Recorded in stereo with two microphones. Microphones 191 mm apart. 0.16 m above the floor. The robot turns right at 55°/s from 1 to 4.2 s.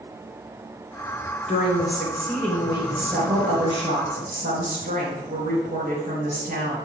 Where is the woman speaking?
120° left, 2.5 m; by 6.8 s 90° right, 2.5 m.